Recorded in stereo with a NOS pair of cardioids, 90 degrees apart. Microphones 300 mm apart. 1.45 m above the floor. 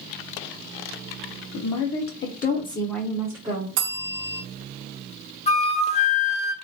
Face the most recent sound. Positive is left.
turn(degrees=20)